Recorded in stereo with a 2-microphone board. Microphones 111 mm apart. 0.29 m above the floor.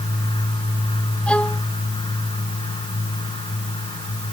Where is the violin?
10° left (ahead or behind).